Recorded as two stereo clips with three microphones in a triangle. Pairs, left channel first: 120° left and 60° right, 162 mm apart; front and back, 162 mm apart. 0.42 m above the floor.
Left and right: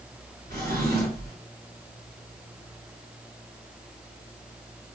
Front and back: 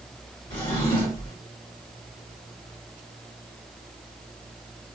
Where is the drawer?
65° right, 2 m.